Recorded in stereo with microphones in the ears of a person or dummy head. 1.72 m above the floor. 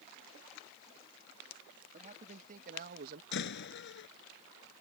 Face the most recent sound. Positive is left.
turn(degrees=60)  # may be behind; listen again after turning